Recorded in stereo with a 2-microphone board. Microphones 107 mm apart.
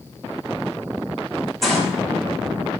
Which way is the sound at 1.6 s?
Centre (ahead or behind).